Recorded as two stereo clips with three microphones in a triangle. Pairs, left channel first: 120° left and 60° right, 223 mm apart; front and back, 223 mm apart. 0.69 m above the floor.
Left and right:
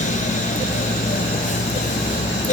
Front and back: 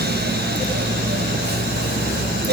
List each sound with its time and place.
Only background noise.